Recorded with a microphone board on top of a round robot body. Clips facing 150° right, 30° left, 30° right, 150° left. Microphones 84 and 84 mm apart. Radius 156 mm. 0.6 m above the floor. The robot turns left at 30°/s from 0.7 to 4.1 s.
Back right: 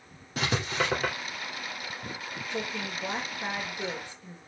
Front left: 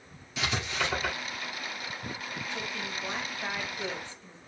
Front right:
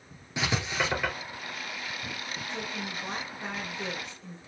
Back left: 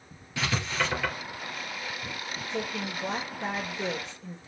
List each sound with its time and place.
0.4 s writing: 100° right, 3 m; by 1.1 s 115° right, 3 m
2.5 s a woman speaking: straight behind, 2.5 m; by 4.4 s 130° left, 2.5 m